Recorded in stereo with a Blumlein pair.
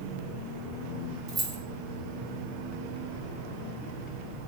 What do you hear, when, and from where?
1.3 s keys jangling: 20° right, 0.9 m